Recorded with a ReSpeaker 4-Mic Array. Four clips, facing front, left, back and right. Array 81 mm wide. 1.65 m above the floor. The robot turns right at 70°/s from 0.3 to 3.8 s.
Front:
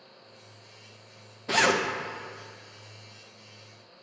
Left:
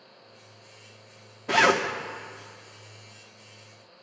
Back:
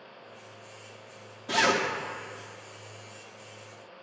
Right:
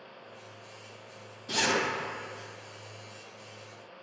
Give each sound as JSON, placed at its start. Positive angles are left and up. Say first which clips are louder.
{"t": 1.5, "sound": "a zipper", "louder": "left 8 dB, front 1 dB", "azimuth_deg": 70, "distance_m": 0.8}